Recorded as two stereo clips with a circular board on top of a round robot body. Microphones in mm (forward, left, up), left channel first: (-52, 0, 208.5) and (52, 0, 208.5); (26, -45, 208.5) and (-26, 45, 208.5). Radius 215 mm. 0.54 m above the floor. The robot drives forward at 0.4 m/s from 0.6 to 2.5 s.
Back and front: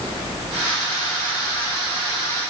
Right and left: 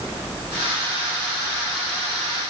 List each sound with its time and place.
Only background noise.